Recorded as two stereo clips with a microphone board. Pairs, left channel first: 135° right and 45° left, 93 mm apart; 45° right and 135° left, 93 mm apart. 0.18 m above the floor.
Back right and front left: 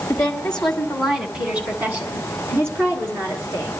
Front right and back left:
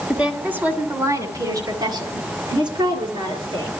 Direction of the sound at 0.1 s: 150° right.